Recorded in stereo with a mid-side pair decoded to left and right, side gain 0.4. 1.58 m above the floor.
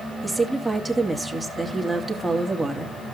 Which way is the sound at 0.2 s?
15° right.